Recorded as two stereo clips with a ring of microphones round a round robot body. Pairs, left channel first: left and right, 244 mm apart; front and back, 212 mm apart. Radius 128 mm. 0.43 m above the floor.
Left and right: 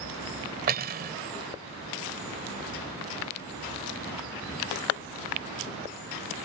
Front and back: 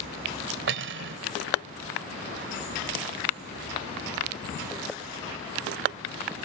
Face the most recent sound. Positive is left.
turn(degrees=-145)